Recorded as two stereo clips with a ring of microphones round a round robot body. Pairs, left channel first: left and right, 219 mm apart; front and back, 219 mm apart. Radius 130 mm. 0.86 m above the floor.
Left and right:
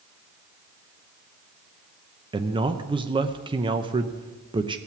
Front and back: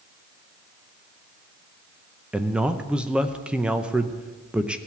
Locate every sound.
2.3 s a man speaking: 105° right, 0.7 m